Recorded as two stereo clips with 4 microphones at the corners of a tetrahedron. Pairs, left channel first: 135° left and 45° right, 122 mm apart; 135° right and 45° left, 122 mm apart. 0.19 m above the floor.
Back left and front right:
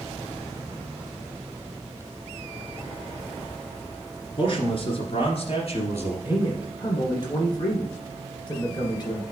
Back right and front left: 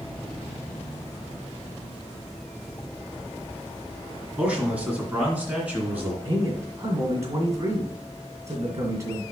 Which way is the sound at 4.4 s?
120° left.